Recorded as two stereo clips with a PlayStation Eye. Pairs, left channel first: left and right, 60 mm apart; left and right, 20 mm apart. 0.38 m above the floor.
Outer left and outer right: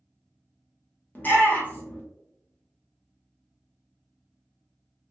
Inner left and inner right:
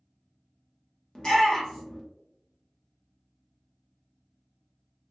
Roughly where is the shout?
Left.